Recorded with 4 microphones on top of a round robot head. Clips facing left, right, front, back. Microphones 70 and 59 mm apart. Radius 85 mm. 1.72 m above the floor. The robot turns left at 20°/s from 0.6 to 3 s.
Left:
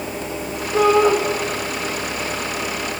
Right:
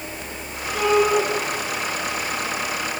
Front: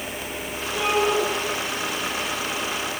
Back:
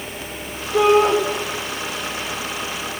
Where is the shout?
150° left, 7.5 m; by 1.2 s 140° left, 7.5 m.